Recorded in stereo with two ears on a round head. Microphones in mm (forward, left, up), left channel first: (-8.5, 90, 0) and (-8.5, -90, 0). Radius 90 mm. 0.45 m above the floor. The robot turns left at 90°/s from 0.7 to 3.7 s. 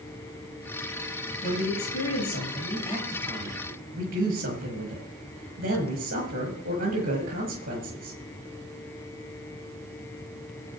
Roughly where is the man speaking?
Behind.